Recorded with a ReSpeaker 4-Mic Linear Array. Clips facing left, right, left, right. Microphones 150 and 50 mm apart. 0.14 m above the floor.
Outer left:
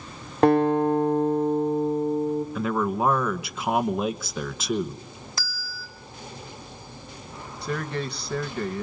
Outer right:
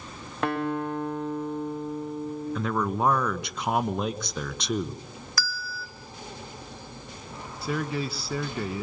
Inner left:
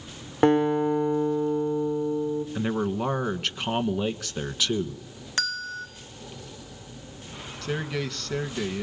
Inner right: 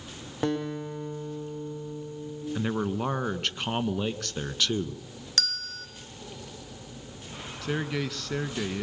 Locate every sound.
0.4 s a guitar: 35° left (ahead or behind), 5 m
2.5 s a man speaking: 5° left (ahead or behind), 1.4 m
5.4 s a bell: 25° left (ahead or behind), 2.0 m
7.6 s a man speaking: 5° right (ahead or behind), 1.5 m